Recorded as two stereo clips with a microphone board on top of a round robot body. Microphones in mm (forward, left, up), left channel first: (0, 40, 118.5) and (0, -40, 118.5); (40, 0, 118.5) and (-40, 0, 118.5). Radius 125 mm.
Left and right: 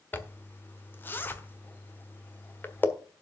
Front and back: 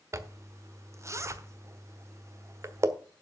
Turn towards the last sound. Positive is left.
turn(degrees=145)